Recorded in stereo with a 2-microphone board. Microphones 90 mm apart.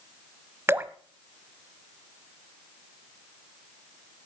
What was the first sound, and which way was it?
Dripping, 25° right (ahead or behind).